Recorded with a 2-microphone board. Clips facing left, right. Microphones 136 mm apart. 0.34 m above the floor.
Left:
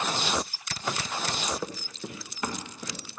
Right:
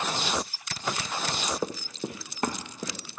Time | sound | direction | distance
1.6 | running footsteps | 25° right (ahead or behind) | 0.8 m